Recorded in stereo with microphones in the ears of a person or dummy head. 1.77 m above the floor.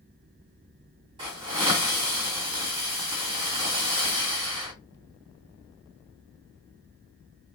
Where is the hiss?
30° right (ahead or behind), 2.0 m.